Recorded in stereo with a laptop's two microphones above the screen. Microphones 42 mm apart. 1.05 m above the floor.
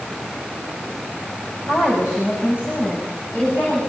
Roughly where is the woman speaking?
Left.